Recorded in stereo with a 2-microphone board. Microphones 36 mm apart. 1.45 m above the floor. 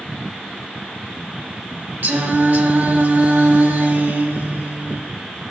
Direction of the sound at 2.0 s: 65° right (ahead or behind).